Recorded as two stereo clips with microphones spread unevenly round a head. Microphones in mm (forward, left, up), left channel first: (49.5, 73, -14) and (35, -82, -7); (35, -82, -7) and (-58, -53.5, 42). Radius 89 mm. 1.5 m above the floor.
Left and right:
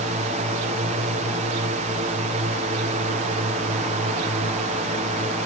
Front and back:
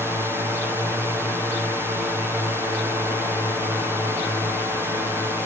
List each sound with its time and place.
0.0 s a drone: 110° right